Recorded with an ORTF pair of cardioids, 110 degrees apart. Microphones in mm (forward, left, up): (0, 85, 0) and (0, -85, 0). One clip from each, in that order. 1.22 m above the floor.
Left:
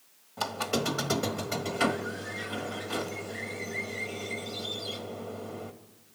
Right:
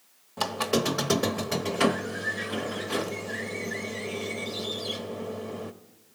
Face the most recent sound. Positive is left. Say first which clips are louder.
# right 4 dB
turn(degrees=-30)